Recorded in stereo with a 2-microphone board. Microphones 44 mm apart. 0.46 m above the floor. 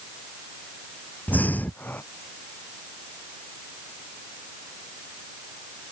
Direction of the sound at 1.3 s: 45° left (ahead or behind).